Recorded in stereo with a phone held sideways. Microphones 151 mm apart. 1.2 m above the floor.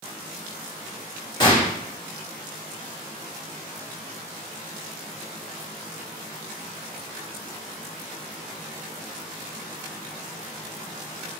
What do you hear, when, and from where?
1.4 s a gunshot: 30° left (ahead or behind), 1.8 m